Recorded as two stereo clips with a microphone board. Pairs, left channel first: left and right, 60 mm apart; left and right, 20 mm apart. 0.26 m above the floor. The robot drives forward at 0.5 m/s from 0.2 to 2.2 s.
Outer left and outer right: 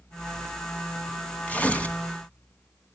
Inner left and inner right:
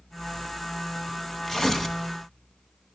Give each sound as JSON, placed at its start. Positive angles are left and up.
{"t": 1.5, "sound": "tearing paper", "side_deg": 25, "distance_m": 1.4}